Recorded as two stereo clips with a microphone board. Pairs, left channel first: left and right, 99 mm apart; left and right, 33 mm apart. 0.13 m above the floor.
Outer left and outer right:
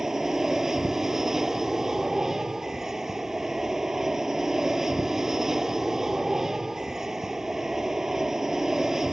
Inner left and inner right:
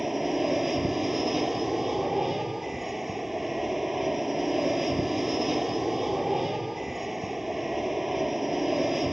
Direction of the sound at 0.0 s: 5° right (ahead or behind).